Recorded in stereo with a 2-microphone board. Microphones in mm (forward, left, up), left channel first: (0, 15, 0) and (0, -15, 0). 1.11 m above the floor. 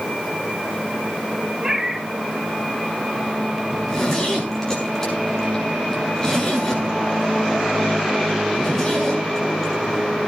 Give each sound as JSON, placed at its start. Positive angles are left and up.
{"t": 1.6, "sound": "a cat meowing", "side_deg": -20, "distance_m": 2.5}
{"t": 3.7, "sound": "a zipper", "side_deg": 10, "distance_m": 6.5}